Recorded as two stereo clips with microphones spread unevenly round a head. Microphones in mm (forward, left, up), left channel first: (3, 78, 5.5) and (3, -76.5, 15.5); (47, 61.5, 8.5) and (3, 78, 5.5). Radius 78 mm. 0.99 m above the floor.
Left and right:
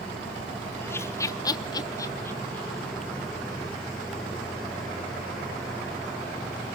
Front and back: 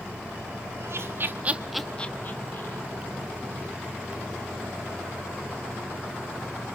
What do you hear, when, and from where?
0.8 s laughter: 165° left, 1.7 m; by 2.8 s 10° left, 1.9 m